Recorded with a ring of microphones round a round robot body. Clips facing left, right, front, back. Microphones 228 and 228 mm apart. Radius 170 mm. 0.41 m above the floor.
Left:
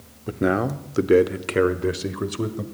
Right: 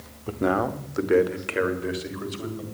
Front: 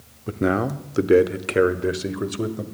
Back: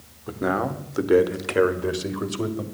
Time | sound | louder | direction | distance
0.3 | a man speaking | left 2 dB, front 3 dB | 25° left | 1.0 m